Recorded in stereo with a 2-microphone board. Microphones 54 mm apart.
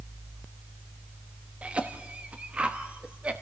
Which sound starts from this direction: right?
A cough, at 1.6 s.